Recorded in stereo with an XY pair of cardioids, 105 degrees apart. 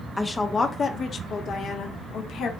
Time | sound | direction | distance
0.2 | a woman speaking | 15° left | 0.9 m